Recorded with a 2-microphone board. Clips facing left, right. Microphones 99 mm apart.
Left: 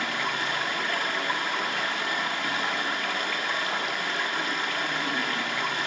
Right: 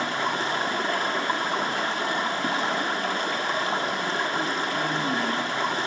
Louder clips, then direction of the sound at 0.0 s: Right 3 dB; 30° right (ahead or behind).